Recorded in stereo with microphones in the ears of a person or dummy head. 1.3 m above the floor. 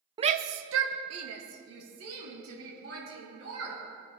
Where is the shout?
25° right (ahead or behind), 0.6 m; by 3.8 s 80° right, 5 m.